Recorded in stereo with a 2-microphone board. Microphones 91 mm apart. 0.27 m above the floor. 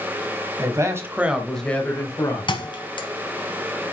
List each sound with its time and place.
0.6 s a man speaking: 40° right (ahead or behind), 1.5 m; by 2.5 s 45° left (ahead or behind), 1.6 m
2.5 s a thud: 60° left (ahead or behind), 1.2 m